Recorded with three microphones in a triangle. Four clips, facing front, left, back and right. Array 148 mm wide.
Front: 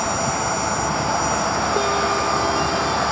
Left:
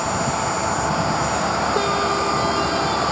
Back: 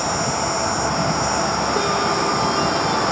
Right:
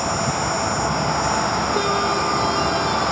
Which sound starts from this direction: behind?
An insect, at 0.0 s.